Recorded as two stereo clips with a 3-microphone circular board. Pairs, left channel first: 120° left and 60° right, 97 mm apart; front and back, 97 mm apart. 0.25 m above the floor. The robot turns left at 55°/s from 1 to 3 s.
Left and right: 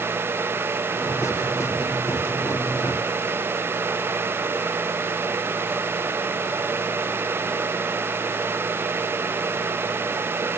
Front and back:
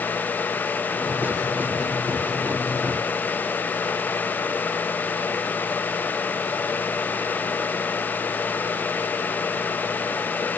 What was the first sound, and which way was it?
Only background noise.